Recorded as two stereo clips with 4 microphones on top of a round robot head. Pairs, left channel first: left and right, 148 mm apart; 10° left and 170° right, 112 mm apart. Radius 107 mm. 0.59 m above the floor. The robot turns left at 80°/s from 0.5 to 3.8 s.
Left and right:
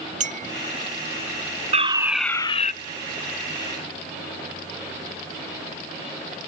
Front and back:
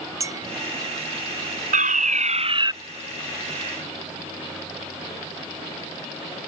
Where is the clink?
110° right.